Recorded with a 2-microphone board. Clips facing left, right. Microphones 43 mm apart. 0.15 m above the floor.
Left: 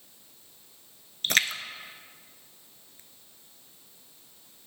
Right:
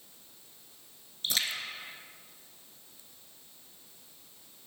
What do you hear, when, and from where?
1.2 s a splash: 60° left (ahead or behind), 0.6 m